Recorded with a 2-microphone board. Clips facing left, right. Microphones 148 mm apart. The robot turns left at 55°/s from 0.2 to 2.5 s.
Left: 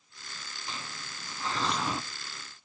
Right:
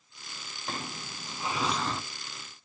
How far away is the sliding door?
About 0.6 m.